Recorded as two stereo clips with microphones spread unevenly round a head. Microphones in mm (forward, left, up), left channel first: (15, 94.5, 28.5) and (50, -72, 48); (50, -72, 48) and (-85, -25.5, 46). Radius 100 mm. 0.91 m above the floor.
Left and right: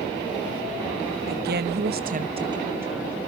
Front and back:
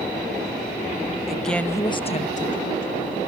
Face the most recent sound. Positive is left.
turn(degrees=10)